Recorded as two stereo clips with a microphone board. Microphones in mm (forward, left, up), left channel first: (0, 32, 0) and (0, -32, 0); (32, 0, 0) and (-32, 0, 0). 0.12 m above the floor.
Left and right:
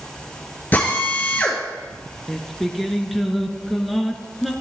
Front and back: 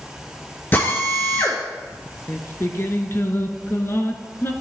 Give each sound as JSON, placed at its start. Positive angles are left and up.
{"t": 0.7, "sound": "a drill", "azimuth_deg": 40, "distance_m": 1.8}
{"t": 2.3, "sound": "singing", "azimuth_deg": 0, "distance_m": 0.7}